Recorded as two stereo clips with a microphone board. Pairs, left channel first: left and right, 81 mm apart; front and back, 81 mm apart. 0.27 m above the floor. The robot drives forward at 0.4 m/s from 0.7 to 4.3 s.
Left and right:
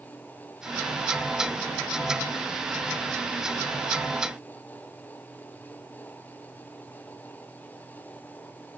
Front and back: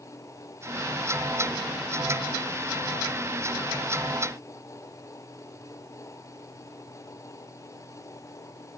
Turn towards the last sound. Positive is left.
No sound to turn to.